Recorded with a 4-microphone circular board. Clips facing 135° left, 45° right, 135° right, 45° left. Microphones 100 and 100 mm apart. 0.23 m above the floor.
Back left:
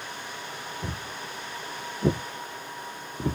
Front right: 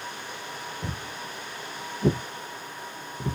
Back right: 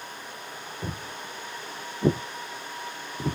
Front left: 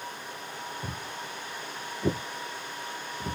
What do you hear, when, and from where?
0.8 s footsteps: 120° right, 1.4 m; by 3.4 s 175° left, 0.8 m